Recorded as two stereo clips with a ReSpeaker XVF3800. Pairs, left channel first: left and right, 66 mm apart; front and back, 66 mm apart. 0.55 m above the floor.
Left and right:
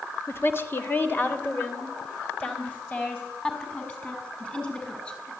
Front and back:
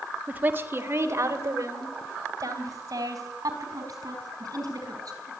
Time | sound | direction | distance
0.3 | a woman speaking | 120° left | 1.6 m